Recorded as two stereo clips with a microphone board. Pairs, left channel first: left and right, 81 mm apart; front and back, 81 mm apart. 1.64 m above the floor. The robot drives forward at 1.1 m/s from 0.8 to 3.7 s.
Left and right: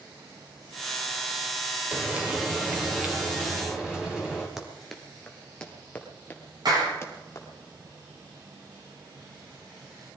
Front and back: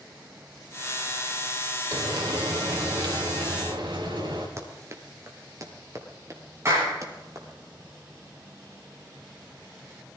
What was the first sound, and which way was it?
Frying, 160° right.